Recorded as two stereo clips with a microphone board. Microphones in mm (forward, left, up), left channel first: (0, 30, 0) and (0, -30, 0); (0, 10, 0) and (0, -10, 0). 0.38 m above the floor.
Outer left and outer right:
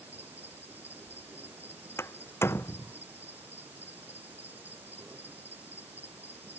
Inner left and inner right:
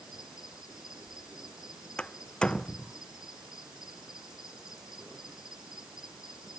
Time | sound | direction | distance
0.0 | an insect | 30° right (ahead or behind) | ?
2.0 | a door slam | 45° left (ahead or behind) | ?